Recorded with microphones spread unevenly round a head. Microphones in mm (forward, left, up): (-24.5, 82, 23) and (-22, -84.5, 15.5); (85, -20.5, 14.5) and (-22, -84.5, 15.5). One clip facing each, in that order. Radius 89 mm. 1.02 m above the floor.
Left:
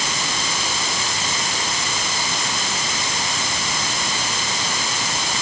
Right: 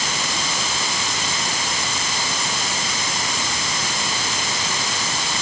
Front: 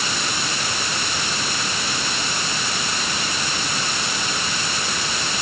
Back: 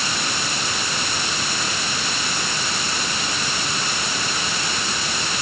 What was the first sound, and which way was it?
Only background noise.